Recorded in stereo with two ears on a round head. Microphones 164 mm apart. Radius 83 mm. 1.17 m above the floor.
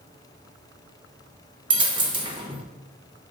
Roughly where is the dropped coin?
Right.